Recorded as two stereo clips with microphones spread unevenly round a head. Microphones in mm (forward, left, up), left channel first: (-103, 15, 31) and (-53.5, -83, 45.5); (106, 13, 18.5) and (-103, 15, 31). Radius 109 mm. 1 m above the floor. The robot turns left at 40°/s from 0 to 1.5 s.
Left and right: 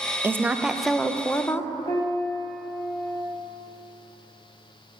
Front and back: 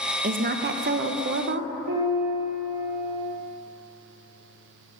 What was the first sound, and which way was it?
A woman speaking, 135° right.